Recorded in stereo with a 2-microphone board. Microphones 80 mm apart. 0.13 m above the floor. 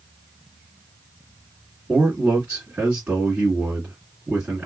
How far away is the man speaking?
About 1.7 m.